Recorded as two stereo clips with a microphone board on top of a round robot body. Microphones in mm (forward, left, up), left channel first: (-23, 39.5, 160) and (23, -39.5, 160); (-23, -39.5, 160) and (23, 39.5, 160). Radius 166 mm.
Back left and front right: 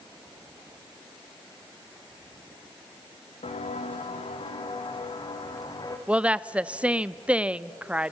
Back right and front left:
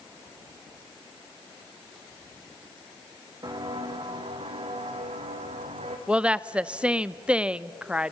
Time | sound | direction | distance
3.4 | footsteps | 110° left | 1.5 m
6.1 | a woman speaking | straight ahead | 0.7 m